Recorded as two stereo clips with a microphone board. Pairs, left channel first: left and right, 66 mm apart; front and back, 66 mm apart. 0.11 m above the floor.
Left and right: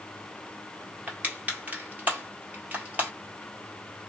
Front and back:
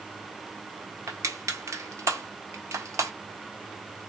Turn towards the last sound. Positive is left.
turn(degrees=-150)